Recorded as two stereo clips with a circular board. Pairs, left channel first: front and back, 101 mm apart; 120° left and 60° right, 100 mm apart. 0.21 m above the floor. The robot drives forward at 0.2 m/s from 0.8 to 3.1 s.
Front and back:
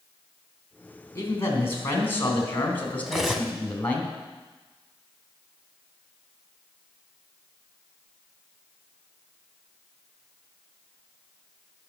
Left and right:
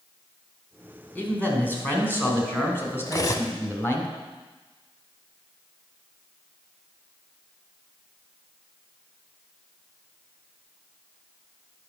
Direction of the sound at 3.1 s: 95° left.